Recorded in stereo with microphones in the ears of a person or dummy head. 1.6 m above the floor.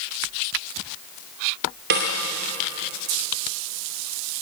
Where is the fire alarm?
I don't hear a fire alarm.